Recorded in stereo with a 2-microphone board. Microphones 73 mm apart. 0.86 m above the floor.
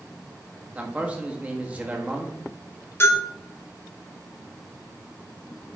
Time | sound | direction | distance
0.8 | a man speaking | 20° right (ahead or behind) | 1.5 m
3.0 | a bell | 35° left (ahead or behind) | 3 m